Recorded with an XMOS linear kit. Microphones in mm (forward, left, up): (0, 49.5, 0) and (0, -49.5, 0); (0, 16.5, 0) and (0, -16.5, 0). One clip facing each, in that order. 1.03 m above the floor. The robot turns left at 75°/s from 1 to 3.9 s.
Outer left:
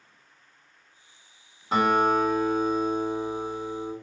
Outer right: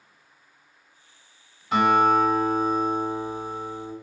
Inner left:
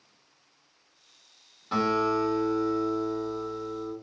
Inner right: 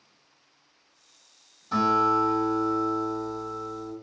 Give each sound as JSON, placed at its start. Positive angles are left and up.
{"t": 1.7, "sound": "a guitar", "azimuth_deg": 35, "distance_m": 1.5}